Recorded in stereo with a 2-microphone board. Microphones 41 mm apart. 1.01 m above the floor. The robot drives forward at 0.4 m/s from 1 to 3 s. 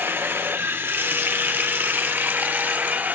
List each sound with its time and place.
0.0 s running water: 75° right (ahead or behind), 1.2 m; by 3.2 s 50° right (ahead or behind), 1.5 m